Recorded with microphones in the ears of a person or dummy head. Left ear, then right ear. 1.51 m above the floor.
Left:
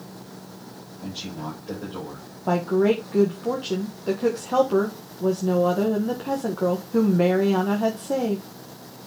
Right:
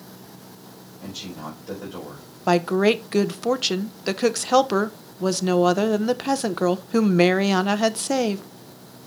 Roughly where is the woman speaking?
Right.